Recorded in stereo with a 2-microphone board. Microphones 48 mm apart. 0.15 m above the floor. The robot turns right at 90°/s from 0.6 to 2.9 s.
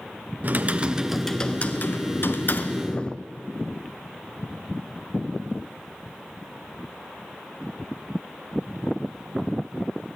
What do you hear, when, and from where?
0.4 s typing on a keyboard: 55° right, 1.0 m; by 3.2 s 155° left, 1.0 m